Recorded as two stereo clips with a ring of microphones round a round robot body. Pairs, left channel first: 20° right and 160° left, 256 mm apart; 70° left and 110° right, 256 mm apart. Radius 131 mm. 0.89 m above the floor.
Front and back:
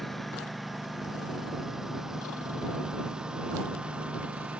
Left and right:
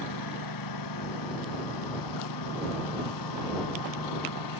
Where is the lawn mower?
65° left; by 4.6 s 70° left.